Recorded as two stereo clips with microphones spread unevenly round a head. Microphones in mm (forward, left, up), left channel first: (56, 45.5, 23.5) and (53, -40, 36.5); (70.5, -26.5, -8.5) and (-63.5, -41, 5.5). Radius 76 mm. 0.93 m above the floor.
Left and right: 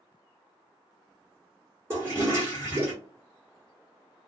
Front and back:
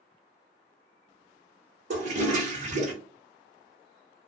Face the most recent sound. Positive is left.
turn(degrees=-160)